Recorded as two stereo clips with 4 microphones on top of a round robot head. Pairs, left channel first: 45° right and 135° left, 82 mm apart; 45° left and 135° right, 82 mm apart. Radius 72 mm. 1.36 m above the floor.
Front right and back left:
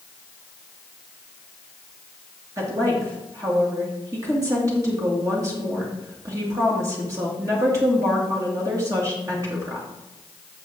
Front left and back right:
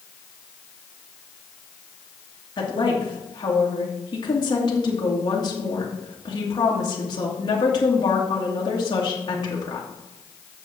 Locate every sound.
2.6 s a woman speaking: 85° left, 2.5 m